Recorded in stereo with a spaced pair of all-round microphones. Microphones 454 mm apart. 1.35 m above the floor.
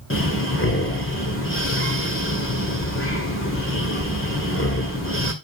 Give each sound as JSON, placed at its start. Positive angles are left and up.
{"t": 0.1, "sound": "breathing", "side_deg": 25, "distance_m": 2.0}